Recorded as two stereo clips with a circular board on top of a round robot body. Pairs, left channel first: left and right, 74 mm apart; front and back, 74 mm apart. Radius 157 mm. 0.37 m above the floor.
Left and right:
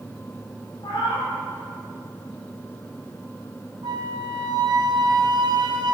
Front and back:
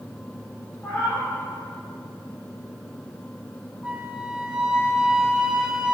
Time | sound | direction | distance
0.8 | a cat meowing | 70° left | 4 m
3.8 | a flute | 100° right | 1.5 m